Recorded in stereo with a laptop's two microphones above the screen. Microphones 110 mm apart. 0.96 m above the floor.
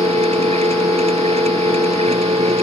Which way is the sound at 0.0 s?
70° right (ahead or behind).